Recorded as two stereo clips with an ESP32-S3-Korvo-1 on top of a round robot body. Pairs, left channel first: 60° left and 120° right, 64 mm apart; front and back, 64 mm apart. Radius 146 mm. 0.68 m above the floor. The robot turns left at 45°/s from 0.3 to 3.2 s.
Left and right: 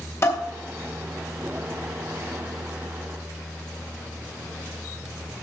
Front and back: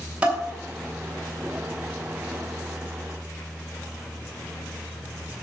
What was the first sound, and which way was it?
Dishes clattering, 110° left.